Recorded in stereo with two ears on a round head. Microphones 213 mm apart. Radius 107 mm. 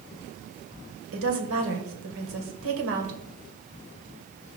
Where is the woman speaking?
60° right (ahead or behind), 2 m.